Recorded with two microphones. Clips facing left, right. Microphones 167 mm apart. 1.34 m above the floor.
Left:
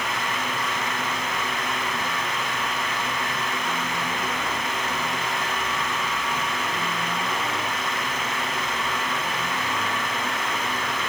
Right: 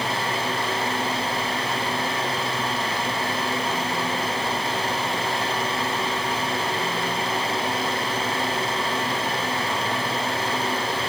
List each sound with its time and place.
Only background noise.